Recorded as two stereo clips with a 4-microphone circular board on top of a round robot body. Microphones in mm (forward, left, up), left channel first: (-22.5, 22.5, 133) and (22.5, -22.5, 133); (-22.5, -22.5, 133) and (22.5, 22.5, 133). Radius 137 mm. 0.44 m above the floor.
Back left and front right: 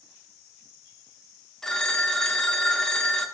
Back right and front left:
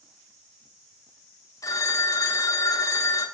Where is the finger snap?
I don't hear a finger snap.